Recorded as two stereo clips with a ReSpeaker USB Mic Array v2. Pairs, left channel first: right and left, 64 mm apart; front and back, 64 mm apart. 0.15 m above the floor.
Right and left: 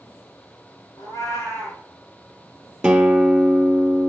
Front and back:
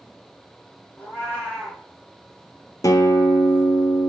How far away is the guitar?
About 0.9 m.